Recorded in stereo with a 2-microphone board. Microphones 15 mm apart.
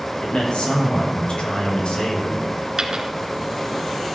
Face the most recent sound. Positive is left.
turn(degrees=-40)  # may be behind; listen again after turning